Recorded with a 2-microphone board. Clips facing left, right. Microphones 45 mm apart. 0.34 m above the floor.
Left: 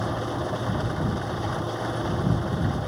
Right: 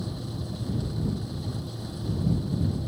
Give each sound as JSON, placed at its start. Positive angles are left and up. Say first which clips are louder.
{"t": 0.0, "sound": "an engine running", "louder": "left 8 dB", "side_deg": 65}